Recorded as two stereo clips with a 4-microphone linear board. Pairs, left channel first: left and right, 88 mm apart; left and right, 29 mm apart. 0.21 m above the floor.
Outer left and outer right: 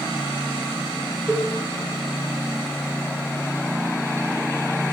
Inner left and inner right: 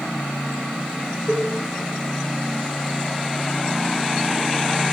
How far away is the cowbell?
About 6 m.